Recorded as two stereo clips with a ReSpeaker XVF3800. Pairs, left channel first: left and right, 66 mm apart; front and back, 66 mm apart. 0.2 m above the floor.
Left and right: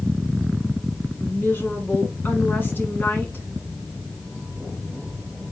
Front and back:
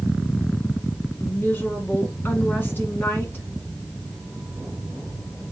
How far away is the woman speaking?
About 1.6 m.